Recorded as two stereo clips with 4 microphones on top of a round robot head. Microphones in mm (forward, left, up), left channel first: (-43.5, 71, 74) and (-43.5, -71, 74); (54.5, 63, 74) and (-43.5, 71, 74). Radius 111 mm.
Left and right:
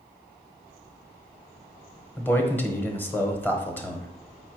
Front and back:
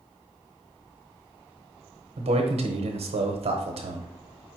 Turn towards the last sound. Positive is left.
turn(degrees=165)